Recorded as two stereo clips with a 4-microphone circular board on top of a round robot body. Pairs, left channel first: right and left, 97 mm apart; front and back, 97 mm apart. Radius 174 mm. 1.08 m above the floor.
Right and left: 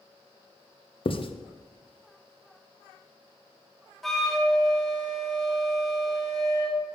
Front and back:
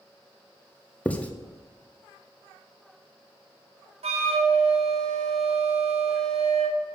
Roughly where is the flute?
Behind.